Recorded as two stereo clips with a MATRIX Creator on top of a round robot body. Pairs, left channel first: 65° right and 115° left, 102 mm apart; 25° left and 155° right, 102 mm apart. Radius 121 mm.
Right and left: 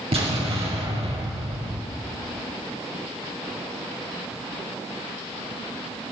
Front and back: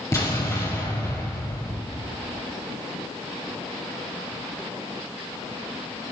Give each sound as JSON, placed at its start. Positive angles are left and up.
{"t": 0.1, "sound": "an explosion", "azimuth_deg": 80, "distance_m": 3.5}